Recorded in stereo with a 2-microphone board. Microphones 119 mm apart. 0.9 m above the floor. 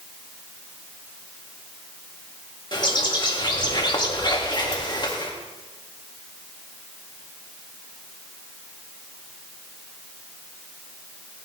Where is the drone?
No drone in this recording.